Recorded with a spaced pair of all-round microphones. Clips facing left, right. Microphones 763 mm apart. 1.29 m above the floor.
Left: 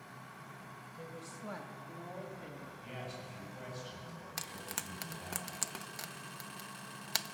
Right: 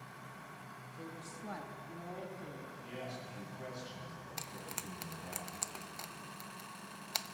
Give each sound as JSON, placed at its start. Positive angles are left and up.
{"t": 1.0, "sound": "a woman speaking", "side_deg": 20, "distance_m": 1.4}
{"t": 2.8, "sound": "a man speaking", "side_deg": 85, "distance_m": 8.0}
{"t": 4.4, "sound": "frying", "side_deg": 55, "distance_m": 0.5}